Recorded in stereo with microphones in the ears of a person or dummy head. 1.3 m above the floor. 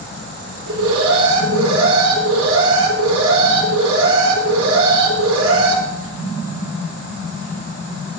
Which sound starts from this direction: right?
An alarm, at 0.7 s.